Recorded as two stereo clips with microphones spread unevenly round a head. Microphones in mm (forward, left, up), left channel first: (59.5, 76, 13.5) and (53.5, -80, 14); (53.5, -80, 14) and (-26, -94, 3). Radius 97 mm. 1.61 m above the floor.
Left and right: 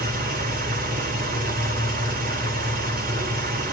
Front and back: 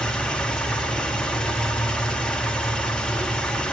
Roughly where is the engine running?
Right.